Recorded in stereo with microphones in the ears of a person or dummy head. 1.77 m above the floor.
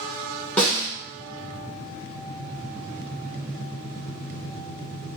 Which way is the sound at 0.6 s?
10° left (ahead or behind).